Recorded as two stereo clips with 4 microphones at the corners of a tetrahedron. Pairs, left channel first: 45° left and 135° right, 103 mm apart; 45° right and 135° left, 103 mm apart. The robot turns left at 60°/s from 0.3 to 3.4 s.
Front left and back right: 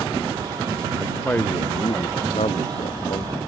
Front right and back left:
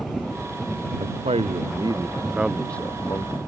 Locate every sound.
1.0 s a man speaking: 140° left; by 3.3 s straight ahead